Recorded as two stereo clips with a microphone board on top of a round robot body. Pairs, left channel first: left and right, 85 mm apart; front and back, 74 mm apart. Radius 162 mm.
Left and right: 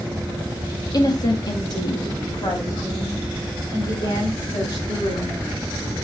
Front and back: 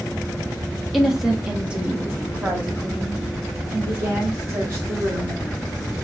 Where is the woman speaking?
90° left, 1.1 m; by 5.4 s 125° left, 3 m.